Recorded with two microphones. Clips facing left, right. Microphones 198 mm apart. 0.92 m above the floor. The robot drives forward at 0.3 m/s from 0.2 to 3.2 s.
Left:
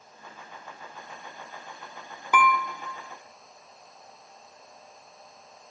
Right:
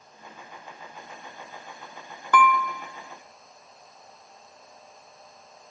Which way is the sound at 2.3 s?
10° left (ahead or behind).